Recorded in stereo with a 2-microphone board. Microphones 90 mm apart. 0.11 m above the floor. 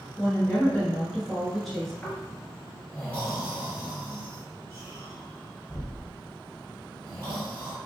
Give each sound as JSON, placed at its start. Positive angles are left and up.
{"t": 0.2, "sound": "a woman speaking", "side_deg": 10, "distance_m": 1.2}
{"t": 2.0, "sound": "snoring", "side_deg": 15, "distance_m": 1.9}